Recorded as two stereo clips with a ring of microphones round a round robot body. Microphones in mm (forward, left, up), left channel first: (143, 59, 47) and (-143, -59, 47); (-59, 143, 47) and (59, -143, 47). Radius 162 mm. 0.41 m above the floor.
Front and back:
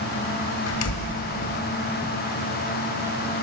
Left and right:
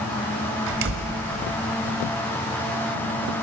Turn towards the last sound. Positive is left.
turn(degrees=-20)